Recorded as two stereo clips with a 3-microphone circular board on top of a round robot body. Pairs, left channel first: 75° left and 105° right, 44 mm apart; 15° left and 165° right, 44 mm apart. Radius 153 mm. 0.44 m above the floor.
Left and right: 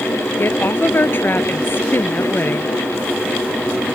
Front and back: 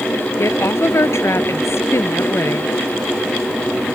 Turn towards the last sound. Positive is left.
turn(degrees=35)